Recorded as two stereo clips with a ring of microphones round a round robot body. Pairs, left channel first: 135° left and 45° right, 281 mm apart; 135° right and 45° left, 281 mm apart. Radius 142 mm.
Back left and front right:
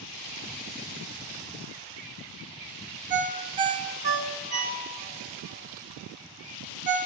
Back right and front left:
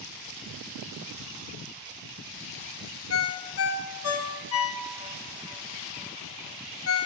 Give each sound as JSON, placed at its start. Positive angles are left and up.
{"t": 3.1, "sound": "a ringtone", "azimuth_deg": -105, "distance_m": 1.2}